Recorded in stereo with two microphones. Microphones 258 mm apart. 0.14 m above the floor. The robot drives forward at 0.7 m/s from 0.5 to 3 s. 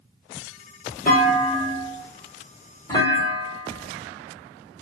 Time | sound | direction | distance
1.1 | a clunk | 35° left (ahead or behind) | 0.8 m